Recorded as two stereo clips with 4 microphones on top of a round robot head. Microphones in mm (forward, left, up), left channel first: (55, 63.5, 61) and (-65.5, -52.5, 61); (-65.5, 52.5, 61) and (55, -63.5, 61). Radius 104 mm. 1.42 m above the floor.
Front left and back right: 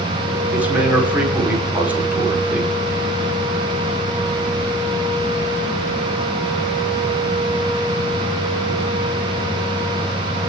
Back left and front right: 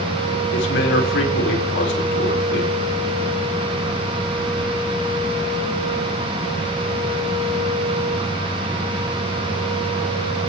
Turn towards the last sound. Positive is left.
turn(degrees=145)